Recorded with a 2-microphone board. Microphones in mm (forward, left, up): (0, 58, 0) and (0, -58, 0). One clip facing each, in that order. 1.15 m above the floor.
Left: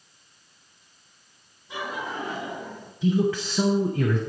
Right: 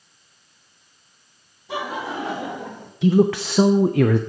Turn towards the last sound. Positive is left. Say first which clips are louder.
# right 6 dB
turn(degrees=-70)  # may be behind; listen again after turning